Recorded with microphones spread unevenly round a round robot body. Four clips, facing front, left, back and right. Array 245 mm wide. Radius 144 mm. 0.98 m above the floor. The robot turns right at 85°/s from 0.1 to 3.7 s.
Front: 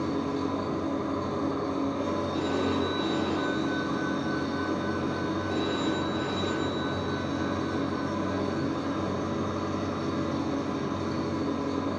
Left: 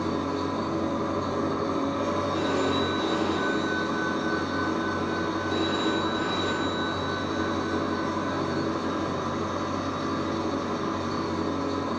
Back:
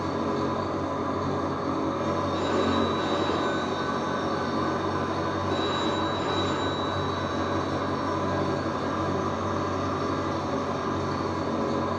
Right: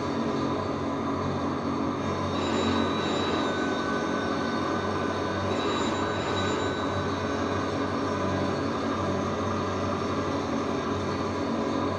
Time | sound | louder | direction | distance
0.0 | an engine running | even, back 2 dB | 50° right | 1.2 m
2.3 | a phone ringing | right 2 dB, back 3 dB | 105° right | 1.6 m